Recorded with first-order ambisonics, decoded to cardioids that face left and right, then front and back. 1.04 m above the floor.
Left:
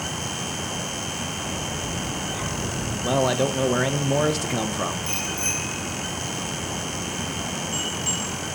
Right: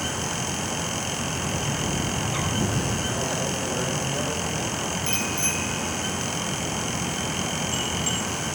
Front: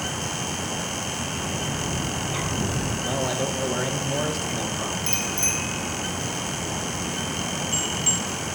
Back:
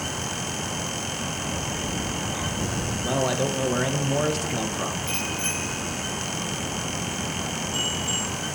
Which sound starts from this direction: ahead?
A bicycle bell, at 5.1 s.